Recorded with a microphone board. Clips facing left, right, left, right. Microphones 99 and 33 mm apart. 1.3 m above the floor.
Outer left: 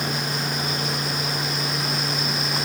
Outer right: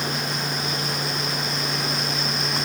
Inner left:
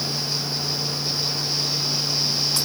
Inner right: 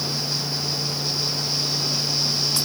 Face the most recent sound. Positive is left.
No sound to turn to.